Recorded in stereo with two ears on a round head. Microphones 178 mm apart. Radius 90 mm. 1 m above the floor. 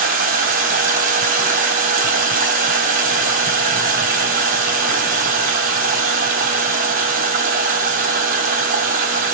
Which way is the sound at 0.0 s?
45° right (ahead or behind).